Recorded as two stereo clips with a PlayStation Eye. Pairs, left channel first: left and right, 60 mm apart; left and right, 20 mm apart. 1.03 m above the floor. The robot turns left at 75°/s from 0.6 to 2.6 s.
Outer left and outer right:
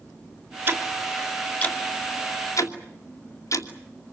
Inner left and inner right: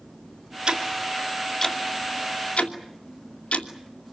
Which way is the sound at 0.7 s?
35° right (ahead or behind).